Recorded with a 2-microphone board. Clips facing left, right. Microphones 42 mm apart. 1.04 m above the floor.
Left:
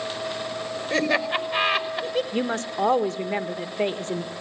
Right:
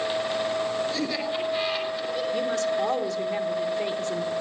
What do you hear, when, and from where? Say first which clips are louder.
0.9 s laughter: left 5 dB; 70° left (ahead or behind), 5 m
2.3 s a woman speaking: right 1 dB; 40° left (ahead or behind), 1.3 m